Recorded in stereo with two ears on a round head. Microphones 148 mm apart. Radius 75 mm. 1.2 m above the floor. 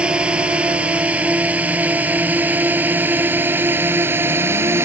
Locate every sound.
0.0 s a drone: 5° right (ahead or behind); by 4.8 s 15° right (ahead or behind)